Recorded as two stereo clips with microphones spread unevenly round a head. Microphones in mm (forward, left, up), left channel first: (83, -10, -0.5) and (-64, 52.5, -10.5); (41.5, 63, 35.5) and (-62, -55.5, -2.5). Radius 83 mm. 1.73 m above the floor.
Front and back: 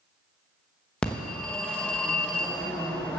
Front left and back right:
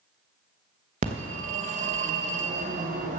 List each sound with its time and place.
1.0 s a phone ringing: 95° right, 1.0 m